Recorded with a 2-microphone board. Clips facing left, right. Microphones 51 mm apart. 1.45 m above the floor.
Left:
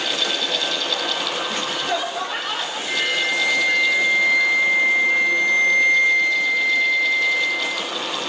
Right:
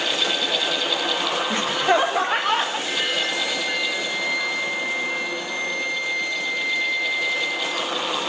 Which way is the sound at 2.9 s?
Centre (ahead or behind).